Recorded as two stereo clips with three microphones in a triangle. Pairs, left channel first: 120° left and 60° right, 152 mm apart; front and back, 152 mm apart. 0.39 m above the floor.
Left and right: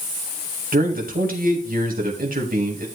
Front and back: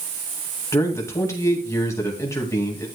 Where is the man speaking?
70° right, 2 m.